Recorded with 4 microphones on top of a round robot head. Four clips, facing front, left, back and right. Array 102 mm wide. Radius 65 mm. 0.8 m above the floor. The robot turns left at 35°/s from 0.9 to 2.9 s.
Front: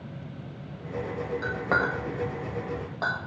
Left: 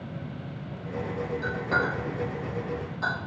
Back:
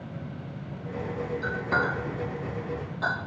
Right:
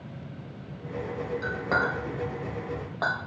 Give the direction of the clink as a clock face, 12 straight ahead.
12 o'clock.